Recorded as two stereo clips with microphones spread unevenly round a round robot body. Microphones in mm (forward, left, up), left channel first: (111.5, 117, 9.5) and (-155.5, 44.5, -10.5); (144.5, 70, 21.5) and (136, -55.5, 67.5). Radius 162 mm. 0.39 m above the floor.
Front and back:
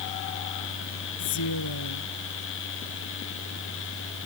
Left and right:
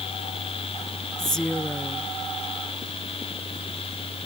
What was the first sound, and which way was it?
A woman speaking, straight ahead.